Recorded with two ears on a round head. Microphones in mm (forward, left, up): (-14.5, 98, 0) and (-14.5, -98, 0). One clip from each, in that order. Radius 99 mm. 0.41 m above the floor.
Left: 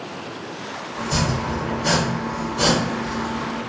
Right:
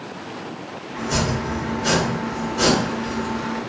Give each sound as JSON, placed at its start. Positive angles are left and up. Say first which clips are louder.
{"t": 0.9, "sound": "chopping", "louder": "right 1 dB", "side_deg": 0, "distance_m": 1.3}